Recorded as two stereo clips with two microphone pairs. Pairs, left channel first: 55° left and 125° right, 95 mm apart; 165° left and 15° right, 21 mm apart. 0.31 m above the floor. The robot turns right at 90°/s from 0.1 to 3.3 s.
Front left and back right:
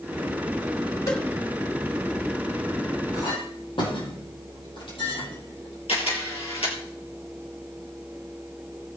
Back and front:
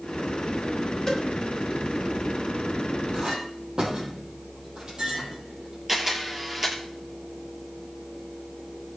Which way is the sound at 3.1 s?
15° left.